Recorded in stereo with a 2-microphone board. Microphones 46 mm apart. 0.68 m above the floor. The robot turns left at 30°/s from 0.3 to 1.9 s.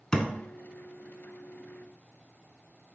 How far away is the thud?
About 0.6 m.